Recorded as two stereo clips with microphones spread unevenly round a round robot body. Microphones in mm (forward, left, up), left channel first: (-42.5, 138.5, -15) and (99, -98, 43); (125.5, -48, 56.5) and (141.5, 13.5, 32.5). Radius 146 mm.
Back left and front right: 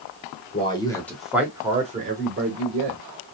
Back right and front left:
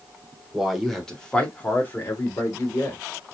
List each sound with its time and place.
0.5 s a man speaking: 110° left, 1.6 m; by 3.0 s 60° right, 1.8 m